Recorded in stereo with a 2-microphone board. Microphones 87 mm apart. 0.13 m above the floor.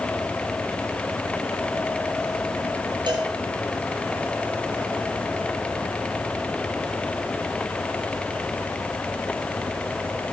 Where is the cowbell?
65° right (ahead or behind), 2 m.